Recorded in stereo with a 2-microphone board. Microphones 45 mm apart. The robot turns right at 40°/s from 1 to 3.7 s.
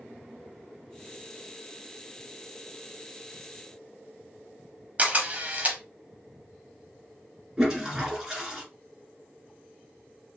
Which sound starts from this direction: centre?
A toilet flushing, at 7.6 s.